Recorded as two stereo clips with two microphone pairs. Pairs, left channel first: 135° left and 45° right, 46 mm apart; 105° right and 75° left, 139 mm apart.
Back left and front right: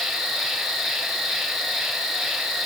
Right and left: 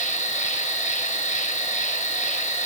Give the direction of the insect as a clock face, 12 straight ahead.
4 o'clock.